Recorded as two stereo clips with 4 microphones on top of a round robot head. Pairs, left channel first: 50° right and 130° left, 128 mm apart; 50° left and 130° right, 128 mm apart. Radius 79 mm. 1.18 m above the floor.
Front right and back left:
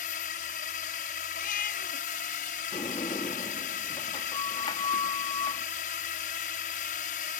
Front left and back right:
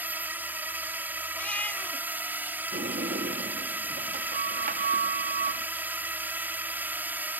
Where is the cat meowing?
30° right.